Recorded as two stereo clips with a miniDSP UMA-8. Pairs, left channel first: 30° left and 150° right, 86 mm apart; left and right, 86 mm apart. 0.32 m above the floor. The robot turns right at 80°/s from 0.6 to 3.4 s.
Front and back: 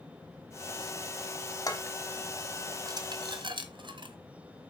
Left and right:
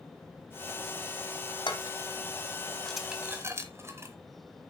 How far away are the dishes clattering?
About 1.4 m.